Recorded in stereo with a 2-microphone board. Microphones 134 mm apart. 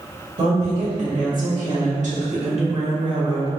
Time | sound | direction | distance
0.4 | a woman speaking | 75° right (ahead or behind) | 2.0 m